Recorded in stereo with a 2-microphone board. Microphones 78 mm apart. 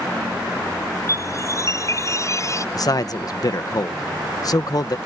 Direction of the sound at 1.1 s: 40° left (ahead or behind).